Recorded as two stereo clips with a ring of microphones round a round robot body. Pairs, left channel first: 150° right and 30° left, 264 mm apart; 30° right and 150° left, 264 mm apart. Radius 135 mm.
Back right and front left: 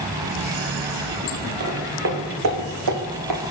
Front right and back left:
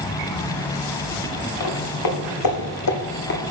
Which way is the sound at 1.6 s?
25° right.